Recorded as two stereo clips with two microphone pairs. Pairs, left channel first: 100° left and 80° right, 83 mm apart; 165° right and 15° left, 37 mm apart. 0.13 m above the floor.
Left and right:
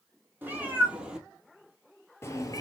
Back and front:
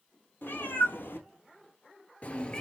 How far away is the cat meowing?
About 1.3 m.